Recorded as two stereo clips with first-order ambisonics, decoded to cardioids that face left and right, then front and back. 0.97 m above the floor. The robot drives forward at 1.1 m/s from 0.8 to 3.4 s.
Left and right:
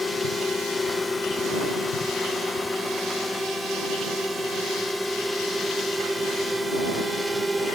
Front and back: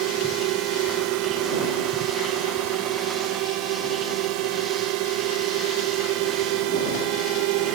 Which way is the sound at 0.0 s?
170° left.